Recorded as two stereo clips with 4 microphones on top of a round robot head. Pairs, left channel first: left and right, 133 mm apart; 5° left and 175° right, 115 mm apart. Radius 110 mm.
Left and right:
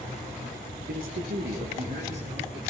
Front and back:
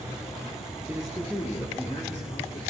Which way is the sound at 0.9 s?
100° right.